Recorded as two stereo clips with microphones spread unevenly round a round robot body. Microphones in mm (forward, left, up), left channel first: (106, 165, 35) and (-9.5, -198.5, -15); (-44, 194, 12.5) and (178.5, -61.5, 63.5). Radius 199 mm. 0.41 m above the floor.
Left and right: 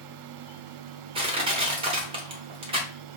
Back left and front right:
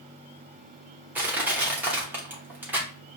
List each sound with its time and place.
1.1 s crushing: 145° right, 1.0 m